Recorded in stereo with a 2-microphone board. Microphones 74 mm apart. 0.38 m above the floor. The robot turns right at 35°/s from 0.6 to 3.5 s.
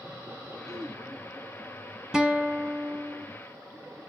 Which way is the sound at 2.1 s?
170° right.